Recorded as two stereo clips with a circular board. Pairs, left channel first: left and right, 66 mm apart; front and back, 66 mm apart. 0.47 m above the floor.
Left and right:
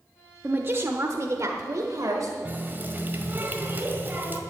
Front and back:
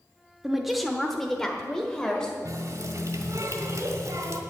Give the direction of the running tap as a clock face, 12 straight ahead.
5 o'clock.